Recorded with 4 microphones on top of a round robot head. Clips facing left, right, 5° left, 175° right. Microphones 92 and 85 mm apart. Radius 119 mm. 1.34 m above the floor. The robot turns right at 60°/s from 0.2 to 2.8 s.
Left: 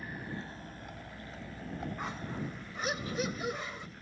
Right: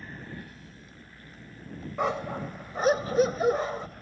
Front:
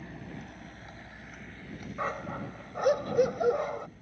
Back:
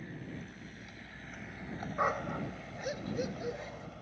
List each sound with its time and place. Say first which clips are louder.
0.0 s a vehicle: left 1 dB, front 1 dB; 10° left; by 4.0 s 140° right
2.0 s a dog barking: right 9 dB, back 2 dB; 100° right; by 3.9 s 50° right